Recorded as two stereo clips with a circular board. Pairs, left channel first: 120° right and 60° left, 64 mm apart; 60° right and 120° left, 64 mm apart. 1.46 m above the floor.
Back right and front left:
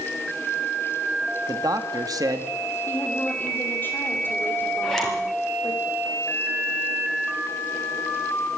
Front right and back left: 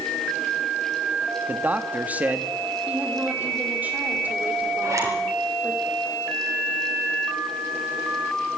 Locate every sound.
1.5 s a man speaking: 55° left, 2 m
2.9 s a woman speaking: 175° right, 5.5 m
4.8 s a zipper: 155° left, 5.5 m